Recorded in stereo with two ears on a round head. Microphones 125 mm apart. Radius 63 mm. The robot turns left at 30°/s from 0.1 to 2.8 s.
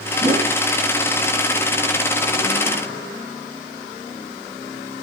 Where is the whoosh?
25° right (ahead or behind), 2 m; by 0.5 s 35° right (ahead or behind), 2 m.